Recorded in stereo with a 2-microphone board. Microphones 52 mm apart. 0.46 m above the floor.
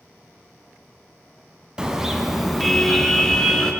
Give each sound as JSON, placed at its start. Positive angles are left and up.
{"t": 1.8, "sound": "a car horn", "side_deg": -15, "distance_m": 2.0}